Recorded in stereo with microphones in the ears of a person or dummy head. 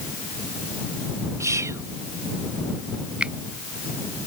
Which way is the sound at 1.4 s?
15° right (ahead or behind).